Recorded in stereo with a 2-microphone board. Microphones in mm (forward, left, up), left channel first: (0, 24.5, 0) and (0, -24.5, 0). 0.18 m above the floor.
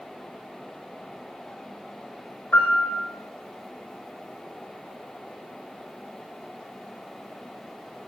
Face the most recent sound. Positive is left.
turn(degrees=35)  # may be behind; listen again after turning